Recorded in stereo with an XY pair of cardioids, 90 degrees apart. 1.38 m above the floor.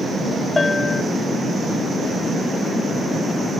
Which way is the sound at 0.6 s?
25° left.